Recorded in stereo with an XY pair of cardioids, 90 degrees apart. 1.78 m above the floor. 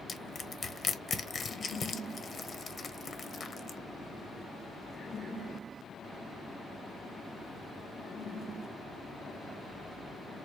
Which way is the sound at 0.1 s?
45° left.